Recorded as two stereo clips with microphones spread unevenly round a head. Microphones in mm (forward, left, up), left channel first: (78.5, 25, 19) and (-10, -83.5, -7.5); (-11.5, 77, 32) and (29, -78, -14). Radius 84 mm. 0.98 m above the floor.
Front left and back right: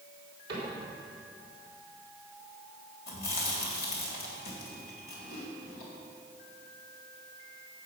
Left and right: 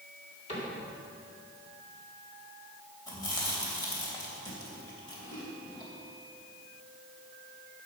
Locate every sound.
0.5 s a cupboard door: 165° left, 4 m
3.1 s chewing: 40° left, 3 m